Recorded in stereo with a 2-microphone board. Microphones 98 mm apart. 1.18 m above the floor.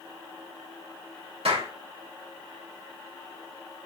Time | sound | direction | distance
1.4 | a clap | 85° right | 3.5 m